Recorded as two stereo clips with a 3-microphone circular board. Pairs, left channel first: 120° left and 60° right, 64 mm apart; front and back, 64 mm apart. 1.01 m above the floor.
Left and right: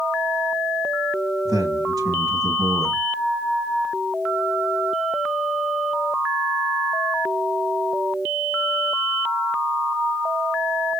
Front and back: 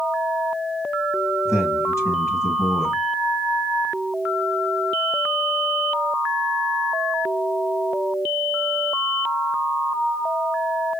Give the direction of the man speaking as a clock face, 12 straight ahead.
2 o'clock.